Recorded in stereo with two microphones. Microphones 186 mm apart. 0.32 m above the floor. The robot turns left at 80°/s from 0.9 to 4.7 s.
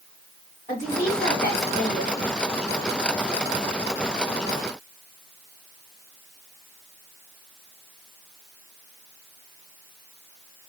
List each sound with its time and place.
0.7 s a woman speaking: 145° left, 2 m; by 2.3 s 35° left, 2 m